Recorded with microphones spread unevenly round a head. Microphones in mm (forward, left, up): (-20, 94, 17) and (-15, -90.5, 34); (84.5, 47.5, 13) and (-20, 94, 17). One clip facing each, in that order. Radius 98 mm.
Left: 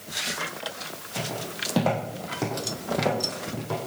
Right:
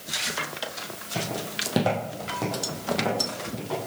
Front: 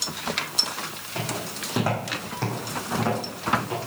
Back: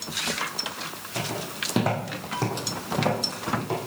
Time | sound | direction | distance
1.1 | footsteps | 130° right | 2.5 m